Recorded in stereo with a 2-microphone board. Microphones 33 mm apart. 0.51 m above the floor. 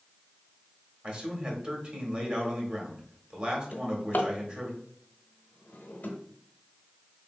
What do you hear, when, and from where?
1.0 s a man speaking: 40° right (ahead or behind), 1.4 m
3.7 s a drawer: 70° left (ahead or behind), 0.9 m